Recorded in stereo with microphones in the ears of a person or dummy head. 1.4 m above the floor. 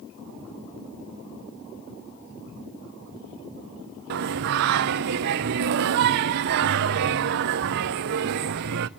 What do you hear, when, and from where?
4.1 s singing: 45° right (ahead or behind), 0.5 m